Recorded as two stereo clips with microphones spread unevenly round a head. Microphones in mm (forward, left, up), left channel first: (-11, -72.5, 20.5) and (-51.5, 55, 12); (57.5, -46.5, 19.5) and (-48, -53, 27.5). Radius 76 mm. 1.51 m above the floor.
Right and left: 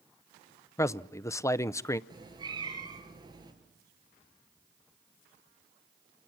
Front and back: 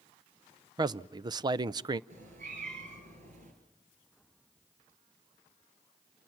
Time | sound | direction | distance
0.8 | a man speaking | 135° right | 0.5 m
2.1 | a cat meowing | 165° left | 4 m